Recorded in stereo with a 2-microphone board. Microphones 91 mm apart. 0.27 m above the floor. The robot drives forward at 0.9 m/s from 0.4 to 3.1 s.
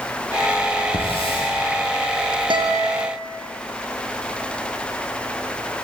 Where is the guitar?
65° right (ahead or behind), 4.5 m; by 3.1 s 70° right (ahead or behind), 4 m.